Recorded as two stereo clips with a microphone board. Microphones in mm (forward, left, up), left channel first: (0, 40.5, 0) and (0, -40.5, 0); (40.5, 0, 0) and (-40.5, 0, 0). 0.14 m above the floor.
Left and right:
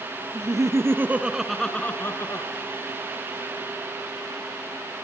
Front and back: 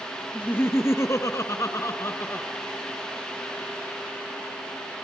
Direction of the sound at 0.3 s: 60° right.